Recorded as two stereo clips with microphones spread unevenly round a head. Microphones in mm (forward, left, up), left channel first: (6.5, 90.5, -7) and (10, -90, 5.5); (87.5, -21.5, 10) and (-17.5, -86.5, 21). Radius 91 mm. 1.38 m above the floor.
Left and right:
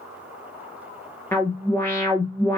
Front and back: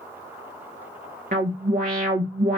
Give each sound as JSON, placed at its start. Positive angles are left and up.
{"t": 1.3, "sound": "an alarm", "azimuth_deg": 170, "distance_m": 3.0}